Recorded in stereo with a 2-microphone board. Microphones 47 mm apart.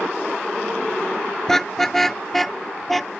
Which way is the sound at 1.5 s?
10° left (ahead or behind).